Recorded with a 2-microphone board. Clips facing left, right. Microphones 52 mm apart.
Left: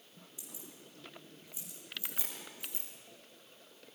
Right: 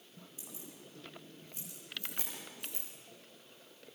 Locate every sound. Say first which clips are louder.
0.4 s keys jangling: right 1 dB; 40° right (ahead or behind), 7.5 m; by 2.9 s 60° right (ahead or behind), 7.5 m